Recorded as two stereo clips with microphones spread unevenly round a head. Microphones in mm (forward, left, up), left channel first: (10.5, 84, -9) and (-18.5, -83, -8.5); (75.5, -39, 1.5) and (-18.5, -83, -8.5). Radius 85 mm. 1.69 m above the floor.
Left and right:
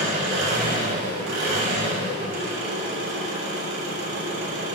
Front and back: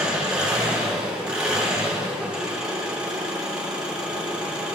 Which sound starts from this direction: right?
An engine running, at 0.0 s.